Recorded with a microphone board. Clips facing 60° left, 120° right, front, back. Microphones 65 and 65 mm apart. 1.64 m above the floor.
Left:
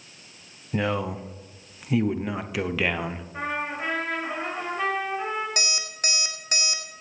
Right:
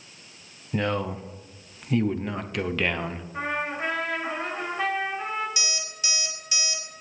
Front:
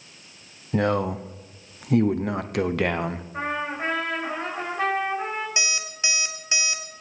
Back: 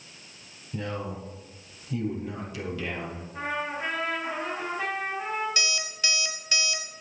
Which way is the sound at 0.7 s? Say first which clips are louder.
Even, front 11 dB; 25° right.